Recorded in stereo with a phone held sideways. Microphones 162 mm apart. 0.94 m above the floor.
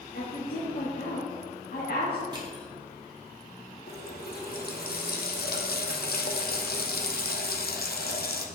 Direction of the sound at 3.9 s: 70° left (ahead or behind).